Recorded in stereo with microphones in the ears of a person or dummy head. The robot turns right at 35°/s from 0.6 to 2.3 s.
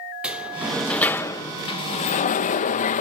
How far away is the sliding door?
About 0.8 m.